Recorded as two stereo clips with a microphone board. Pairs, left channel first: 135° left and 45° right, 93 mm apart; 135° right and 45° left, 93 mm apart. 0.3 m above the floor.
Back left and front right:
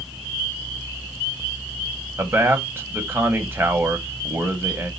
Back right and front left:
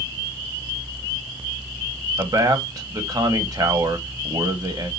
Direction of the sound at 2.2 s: 15° left.